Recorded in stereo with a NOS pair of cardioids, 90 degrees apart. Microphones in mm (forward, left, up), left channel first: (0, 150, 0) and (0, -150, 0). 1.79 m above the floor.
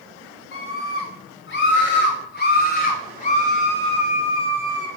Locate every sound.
0.5 s a scream: 50° left, 5.5 m; by 4.9 s 10° left, 4.5 m